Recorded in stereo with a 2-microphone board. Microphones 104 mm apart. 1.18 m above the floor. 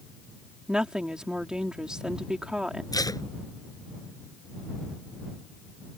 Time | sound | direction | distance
0.7 | a woman speaking | 10° right (ahead or behind) | ?
2.9 | tape being pulled | 35° left (ahead or behind) | ?